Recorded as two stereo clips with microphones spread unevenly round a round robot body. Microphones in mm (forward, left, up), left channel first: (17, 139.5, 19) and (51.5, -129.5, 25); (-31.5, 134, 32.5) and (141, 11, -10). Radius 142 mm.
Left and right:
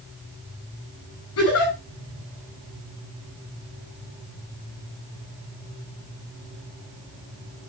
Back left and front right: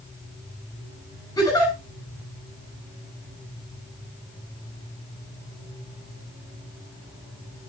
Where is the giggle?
65° left, 5.5 m.